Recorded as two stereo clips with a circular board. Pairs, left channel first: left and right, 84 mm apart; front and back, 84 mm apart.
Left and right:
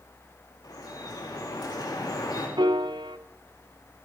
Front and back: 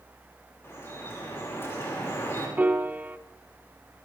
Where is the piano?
110° right, 0.6 m.